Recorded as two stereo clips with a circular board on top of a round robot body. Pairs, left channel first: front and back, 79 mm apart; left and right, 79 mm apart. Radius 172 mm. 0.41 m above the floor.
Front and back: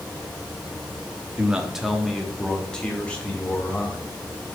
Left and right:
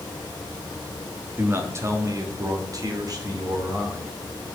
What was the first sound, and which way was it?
A man speaking, 115° right.